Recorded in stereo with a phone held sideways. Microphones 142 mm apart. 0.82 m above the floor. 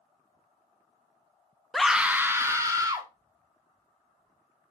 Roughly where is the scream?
Centre.